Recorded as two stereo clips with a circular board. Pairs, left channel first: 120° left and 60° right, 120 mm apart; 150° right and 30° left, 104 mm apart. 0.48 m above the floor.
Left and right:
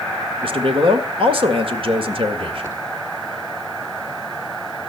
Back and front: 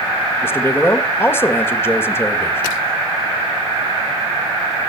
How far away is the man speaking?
About 1.9 m.